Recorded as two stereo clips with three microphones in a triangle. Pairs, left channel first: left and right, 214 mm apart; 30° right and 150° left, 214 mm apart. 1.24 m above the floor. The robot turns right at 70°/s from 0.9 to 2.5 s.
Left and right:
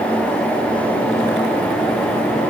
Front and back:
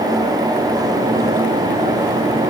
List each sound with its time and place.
Only background noise.